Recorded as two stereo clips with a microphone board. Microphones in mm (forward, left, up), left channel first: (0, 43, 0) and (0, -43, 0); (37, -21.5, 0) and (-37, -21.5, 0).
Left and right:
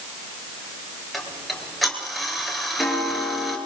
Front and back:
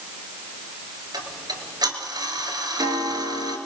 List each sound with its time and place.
1.1 s ticking: straight behind, 3 m